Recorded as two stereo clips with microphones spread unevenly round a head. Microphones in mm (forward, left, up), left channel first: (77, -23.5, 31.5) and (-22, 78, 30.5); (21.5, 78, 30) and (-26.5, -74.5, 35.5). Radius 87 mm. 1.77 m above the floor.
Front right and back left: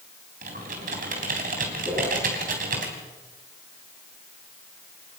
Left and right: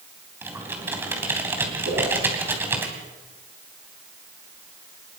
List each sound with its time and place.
0.4 s typing on a keyboard: 175° left, 3 m
1.9 s a whoosh: 150° right, 9 m